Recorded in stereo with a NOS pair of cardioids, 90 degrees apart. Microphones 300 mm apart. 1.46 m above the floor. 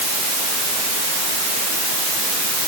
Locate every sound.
Only background noise.